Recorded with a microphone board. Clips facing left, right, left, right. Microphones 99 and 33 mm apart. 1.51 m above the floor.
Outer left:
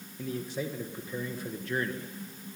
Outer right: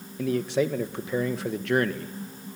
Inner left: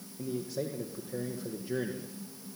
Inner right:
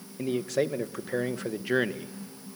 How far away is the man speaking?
About 1.7 m.